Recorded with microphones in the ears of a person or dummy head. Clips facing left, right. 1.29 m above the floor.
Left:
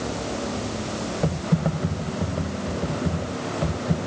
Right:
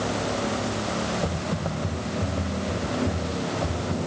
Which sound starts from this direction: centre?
Typing on a keyboard, at 1.2 s.